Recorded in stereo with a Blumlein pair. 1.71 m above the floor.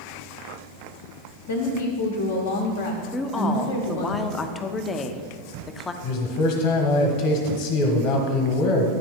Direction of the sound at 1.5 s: 60° left.